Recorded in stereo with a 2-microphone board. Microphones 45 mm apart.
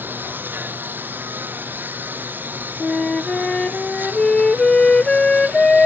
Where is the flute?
15° left (ahead or behind).